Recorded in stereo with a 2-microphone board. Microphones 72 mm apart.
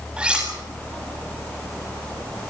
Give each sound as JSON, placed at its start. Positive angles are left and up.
{"t": 0.2, "sound": "cutlery clinking", "side_deg": -15, "distance_m": 7.5}